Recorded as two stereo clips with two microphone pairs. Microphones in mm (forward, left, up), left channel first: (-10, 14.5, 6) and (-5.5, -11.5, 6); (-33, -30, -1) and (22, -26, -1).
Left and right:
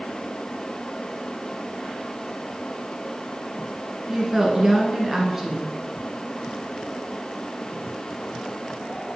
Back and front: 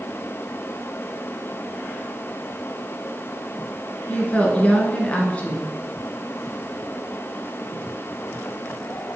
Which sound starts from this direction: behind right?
A woman speaking, at 4.1 s.